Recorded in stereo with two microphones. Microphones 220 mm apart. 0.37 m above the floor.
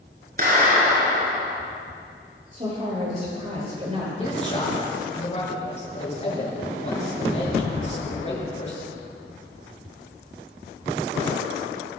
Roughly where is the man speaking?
Left.